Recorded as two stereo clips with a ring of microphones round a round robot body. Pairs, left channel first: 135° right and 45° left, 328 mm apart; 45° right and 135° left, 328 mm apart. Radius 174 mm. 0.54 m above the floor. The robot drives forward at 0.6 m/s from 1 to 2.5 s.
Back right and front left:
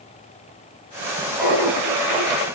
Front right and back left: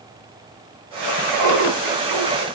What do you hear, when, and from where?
1.4 s laughter: 135° left, 5 m; by 2.5 s 140° left, 5.5 m